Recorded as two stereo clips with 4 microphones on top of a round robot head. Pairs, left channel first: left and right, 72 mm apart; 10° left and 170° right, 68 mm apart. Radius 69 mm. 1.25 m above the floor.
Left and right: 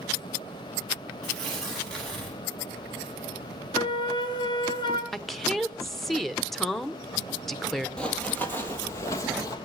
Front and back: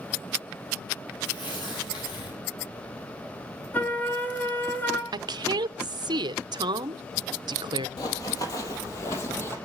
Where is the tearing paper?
5° left, 9 m.